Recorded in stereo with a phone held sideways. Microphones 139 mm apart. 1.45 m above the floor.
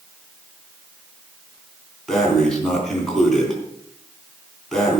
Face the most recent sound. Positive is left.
turn(degrees=5)  # may be behind; listen again after turning